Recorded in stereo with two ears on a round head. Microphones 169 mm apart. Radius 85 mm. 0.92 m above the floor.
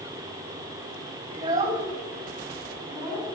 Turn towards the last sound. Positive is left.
turn(degrees=5)  # may be behind; listen again after turning